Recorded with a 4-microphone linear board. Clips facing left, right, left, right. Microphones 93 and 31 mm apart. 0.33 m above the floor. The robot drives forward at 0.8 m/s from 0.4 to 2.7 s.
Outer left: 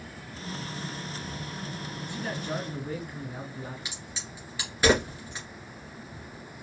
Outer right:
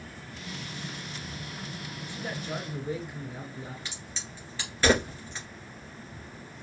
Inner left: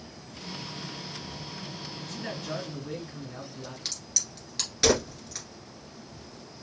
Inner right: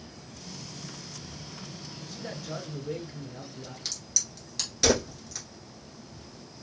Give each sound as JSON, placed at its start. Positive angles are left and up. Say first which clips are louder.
{"t": 2.0, "sound": "a man speaking", "louder": "outer left 2 dB, inner left 2 dB", "side_deg": 55, "distance_m": 3.5}
{"t": 3.9, "sound": "a crack", "louder": "outer left 1 dB, even", "side_deg": 15, "distance_m": 2.5}